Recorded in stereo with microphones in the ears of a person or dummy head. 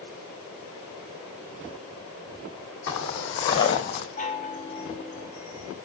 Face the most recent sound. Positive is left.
turn(degrees=45)  # may be behind; listen again after turning